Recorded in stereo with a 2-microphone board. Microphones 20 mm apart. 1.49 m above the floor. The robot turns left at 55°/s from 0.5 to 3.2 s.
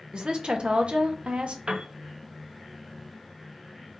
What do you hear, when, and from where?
0.1 s a woman speaking: 55° right, 0.7 m; by 1.6 s 110° right, 0.7 m
1.7 s a piano: 70° right (ahead or behind), 0.7 m; by 1.9 s 80° right, 0.7 m